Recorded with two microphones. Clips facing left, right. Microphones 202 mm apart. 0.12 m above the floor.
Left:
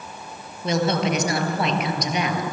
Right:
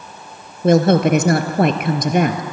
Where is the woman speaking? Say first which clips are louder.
Right 9 dB; 50° right (ahead or behind), 1.8 m.